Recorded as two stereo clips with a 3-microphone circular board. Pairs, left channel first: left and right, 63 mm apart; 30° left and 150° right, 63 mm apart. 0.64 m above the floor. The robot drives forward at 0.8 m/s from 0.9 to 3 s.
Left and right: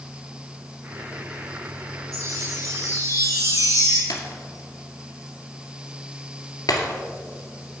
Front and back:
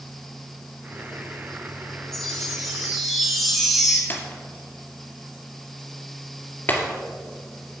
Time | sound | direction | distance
2.1 | a chime | 55° right | 4.5 m
4.1 | breaking glass | 85° left | 1.9 m